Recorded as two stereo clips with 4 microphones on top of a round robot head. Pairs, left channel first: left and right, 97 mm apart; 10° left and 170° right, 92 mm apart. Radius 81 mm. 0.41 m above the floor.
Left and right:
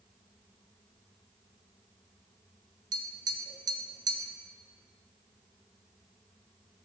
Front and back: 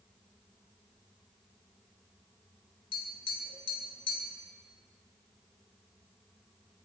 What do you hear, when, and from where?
2.9 s tapping: 40° right, 1.9 m